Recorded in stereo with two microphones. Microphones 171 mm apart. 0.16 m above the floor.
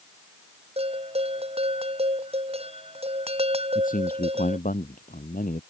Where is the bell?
35° right (ahead or behind).